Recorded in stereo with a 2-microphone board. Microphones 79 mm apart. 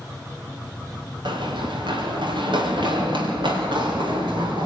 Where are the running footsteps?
90° right, 6 m; by 4.7 s 85° right, 9 m.